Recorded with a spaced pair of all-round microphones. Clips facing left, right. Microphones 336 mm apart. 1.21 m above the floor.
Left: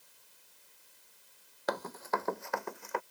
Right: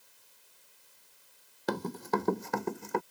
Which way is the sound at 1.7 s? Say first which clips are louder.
Right 4 dB; 40° right (ahead or behind).